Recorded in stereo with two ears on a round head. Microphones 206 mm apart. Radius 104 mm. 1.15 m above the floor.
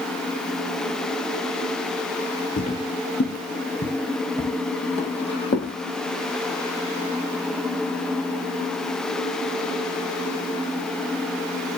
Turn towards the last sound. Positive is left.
turn(degrees=25)  # may be behind; listen again after turning